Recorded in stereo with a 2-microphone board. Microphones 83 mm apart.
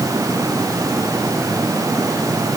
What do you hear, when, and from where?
Only background noise.